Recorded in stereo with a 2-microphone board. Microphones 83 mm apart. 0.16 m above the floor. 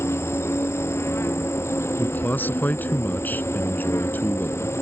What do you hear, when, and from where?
0.0 s an insect: 30° left (ahead or behind)
2.0 s a man speaking: 25° left (ahead or behind)